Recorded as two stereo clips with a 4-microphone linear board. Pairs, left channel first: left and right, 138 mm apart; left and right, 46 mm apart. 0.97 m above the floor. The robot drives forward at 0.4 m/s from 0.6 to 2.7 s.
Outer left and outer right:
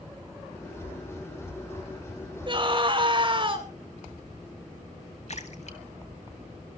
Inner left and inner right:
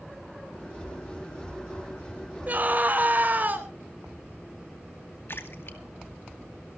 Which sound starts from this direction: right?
A scream, at 2.5 s.